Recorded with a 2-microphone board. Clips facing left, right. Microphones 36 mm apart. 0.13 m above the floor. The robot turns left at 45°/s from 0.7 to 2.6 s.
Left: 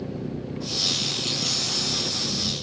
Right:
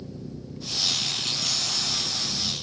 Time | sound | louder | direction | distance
0.0 | an engine running | left 7 dB | 130° left | ?